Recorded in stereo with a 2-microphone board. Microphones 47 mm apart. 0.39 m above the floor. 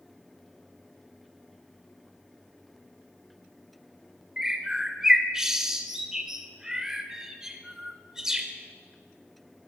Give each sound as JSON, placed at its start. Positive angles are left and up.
{"t": 4.4, "sound": "a bird", "side_deg": -15, "distance_m": 0.5}